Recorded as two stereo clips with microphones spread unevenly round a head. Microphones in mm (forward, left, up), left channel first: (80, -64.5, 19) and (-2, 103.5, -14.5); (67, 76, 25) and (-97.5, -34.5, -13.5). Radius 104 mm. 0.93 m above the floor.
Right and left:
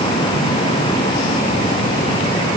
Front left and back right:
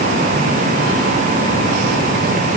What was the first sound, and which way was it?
Only background noise.